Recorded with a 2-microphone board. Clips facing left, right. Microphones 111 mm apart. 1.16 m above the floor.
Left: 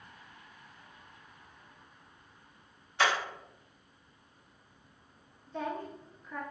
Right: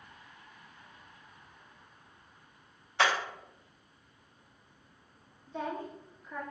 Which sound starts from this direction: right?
Hammering, at 3.0 s.